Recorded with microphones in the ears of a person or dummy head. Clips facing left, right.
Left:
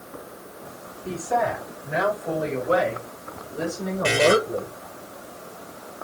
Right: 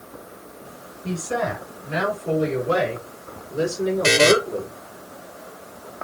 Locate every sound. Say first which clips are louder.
1.0 s a woman speaking: left 1 dB; 75° right (ahead or behind), 5 m; by 4.7 s 50° right (ahead or behind), 4 m
4.0 s a buzzer: right 2 dB; 75° right (ahead or behind), 1.7 m